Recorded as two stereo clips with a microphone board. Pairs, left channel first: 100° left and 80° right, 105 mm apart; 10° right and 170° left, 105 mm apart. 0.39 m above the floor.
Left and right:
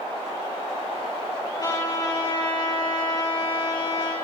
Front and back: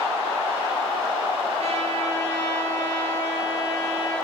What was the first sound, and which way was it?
A trumpet, 150° left.